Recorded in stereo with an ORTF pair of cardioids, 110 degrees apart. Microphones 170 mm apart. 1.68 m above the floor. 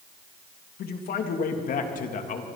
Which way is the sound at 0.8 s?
65° left.